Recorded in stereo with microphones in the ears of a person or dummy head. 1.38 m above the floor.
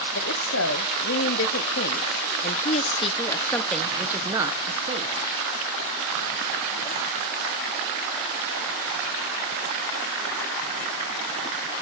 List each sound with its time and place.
0.1 s a woman speaking: 75° left (ahead or behind), 1.9 m; by 5.2 s 35° right (ahead or behind), 1.2 m